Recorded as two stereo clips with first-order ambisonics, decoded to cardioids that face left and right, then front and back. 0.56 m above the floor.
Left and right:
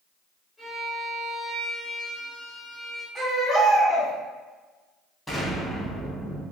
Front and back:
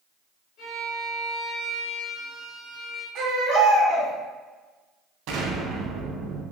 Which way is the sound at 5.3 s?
175° left.